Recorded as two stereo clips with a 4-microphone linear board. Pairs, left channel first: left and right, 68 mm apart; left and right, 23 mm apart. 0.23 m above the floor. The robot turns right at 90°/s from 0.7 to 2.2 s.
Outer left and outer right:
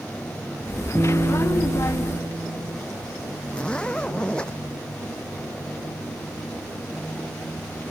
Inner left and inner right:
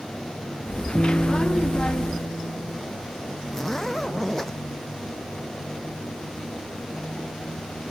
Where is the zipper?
15° left (ahead or behind).